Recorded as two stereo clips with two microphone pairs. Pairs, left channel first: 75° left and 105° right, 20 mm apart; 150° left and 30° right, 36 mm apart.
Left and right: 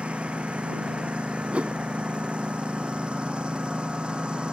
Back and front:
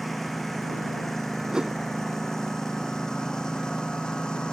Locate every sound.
0.0 s a lawn mower: 125° right; by 4.5 s 140° right
1.5 s a whoosh: 100° right